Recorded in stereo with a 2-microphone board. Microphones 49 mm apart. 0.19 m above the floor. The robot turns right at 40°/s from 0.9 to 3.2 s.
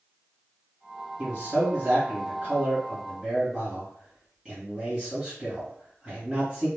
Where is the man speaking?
110° right, 2.0 m; by 6.7 s 25° right, 2.0 m.